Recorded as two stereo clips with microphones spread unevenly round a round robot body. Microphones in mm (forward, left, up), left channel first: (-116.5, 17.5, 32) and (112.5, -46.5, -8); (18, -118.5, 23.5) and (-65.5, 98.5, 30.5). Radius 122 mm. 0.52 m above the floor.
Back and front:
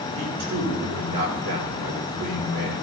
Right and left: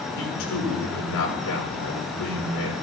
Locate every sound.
0.1 s a man speaking: 35° right, 8 m